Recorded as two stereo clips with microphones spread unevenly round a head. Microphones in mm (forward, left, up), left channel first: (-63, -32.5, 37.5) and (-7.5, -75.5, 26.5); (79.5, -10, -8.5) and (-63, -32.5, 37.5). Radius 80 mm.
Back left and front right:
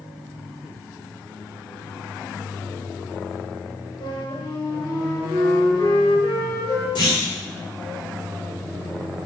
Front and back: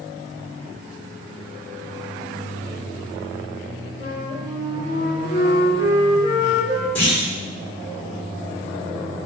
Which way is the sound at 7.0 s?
90° left.